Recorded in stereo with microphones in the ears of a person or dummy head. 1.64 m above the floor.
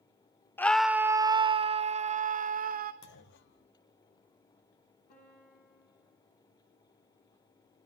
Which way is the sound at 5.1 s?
45° left (ahead or behind).